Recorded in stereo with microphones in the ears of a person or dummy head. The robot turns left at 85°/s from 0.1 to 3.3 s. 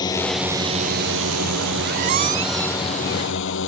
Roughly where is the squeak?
Right.